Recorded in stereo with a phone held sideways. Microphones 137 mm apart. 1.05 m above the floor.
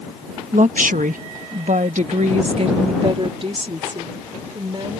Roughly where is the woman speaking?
Right.